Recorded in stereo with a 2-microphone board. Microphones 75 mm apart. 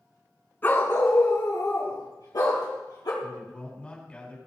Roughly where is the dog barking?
Left.